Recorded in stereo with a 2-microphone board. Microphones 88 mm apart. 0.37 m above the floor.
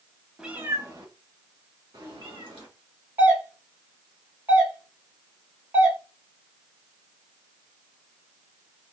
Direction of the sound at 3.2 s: 25° right (ahead or behind).